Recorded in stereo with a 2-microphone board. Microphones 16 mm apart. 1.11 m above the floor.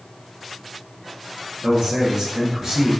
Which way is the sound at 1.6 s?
80° right.